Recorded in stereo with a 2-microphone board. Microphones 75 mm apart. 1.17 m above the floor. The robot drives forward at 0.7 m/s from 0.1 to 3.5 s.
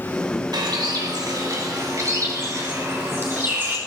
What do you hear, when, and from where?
0.5 s a bird: 65° right (ahead or behind), 1.8 m; by 3.8 s 30° right (ahead or behind), 3 m